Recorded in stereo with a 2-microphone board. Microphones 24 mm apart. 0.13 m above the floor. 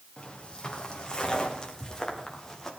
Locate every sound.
0.2 s footsteps: 35° left (ahead or behind), 4.5 m; by 2.7 s 15° left (ahead or behind), 4.5 m